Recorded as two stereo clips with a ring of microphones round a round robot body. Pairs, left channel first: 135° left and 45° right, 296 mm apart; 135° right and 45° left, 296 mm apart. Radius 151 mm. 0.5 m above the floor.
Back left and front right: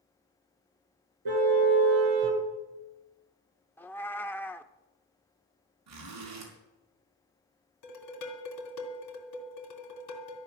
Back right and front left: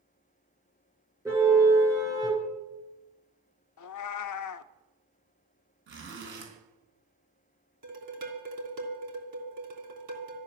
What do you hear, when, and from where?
1.2 s a car horn: 40° right, 4.5 m; by 2.4 s 30° right, 3.5 m
3.8 s a cat meowing: 140° right, 0.6 m
5.9 s a zipper: 10° right, 4.5 m
7.8 s dishes clattering: 105° left, 3 m